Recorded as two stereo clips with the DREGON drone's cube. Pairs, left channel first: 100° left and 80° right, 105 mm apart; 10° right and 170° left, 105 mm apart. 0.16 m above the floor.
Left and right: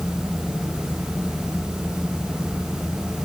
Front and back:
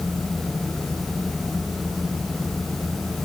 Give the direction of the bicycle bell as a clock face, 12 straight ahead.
I don't hear a bicycle bell.